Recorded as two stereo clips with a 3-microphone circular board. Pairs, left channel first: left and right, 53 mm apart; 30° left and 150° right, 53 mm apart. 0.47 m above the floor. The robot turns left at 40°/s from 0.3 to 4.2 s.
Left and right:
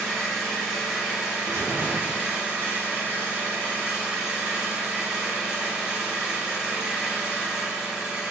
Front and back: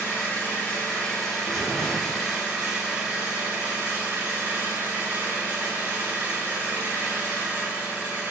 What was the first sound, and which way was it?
An engine running, 15° left.